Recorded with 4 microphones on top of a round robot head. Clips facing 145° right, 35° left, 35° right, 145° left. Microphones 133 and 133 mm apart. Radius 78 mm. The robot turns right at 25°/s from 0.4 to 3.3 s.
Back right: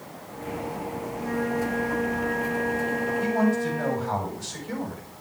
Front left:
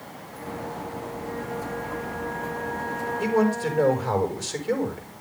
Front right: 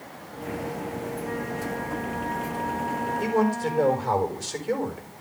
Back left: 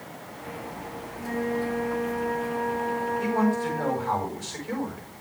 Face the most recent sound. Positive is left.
turn(degrees=15)